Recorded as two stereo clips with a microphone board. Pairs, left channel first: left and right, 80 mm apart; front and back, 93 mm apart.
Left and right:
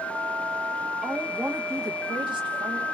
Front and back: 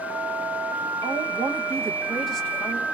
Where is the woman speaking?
170° right, 0.8 m; by 2.9 s 65° right, 0.8 m.